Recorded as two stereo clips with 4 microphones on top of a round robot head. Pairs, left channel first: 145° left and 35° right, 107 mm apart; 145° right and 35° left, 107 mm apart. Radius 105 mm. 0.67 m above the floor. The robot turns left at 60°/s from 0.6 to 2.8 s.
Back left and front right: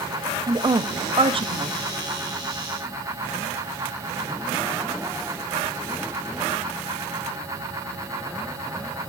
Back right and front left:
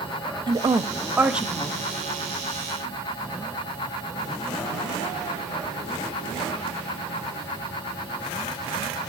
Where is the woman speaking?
5° left, 0.7 m; by 1.8 s 65° right, 0.7 m.